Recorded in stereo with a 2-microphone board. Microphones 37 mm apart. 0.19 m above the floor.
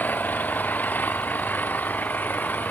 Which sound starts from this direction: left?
An engine running, at 0.0 s.